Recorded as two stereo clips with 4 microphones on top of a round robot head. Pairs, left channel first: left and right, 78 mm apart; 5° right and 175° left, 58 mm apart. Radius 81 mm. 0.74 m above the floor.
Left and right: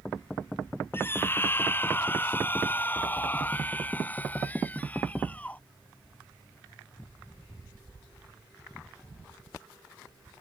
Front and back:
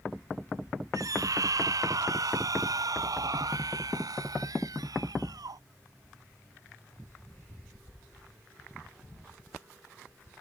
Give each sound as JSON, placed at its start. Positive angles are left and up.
{"t": 0.9, "sound": "a scream", "azimuth_deg": 150}